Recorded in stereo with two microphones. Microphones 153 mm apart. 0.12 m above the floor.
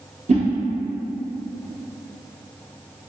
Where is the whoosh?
50° right (ahead or behind), 0.8 m.